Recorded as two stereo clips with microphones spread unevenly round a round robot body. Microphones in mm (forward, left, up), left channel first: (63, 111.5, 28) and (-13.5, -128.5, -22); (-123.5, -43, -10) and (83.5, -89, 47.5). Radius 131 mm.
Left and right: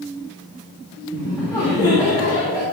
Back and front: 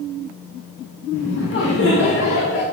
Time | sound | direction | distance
1.1 | laughter | 155° left | 2 m